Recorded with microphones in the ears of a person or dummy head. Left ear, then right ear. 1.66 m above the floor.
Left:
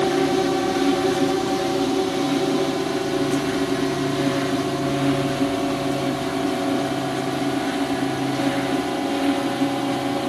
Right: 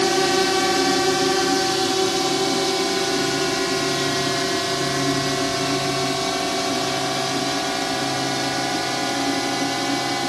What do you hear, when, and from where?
0.0 s a drone: 55° right (ahead or behind); by 10.3 s 65° right (ahead or behind)